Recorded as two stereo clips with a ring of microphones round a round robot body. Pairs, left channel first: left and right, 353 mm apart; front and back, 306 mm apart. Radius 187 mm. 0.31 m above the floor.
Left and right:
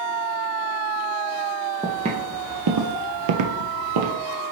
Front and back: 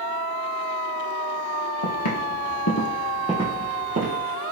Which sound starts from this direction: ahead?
Footsteps, at 1.8 s.